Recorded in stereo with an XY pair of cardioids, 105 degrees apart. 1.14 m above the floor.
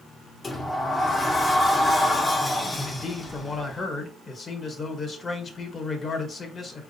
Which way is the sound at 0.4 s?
20° left.